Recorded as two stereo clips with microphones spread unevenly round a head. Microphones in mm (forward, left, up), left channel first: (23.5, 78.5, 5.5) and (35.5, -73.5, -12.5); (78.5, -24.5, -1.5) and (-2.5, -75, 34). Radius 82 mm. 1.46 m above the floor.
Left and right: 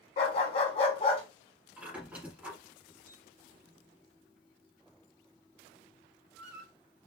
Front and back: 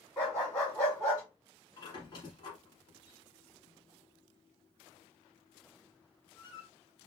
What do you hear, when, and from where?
0.2 s a dog barking: 120° left, 1.2 m
1.8 s a squeak: straight ahead, 1.5 m